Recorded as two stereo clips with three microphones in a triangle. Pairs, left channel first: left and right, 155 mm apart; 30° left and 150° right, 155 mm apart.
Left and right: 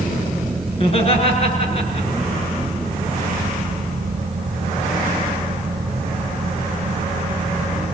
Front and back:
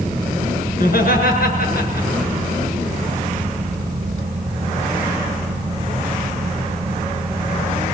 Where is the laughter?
40° left, 5.5 m.